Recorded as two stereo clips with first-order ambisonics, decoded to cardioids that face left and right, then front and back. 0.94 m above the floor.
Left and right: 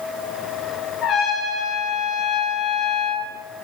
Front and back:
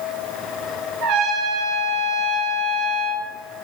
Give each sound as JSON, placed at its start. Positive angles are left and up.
{"t": 1.0, "sound": "a trumpet", "azimuth_deg": 145, "distance_m": 3.0}